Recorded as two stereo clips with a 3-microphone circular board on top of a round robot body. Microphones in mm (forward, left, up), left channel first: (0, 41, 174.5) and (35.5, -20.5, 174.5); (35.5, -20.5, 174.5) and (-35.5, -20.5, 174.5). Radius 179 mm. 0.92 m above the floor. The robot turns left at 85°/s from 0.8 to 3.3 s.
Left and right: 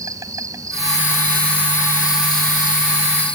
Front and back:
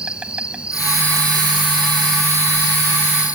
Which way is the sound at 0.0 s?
105° right.